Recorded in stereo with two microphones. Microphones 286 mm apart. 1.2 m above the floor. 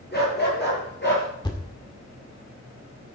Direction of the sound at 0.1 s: 35° left (ahead or behind).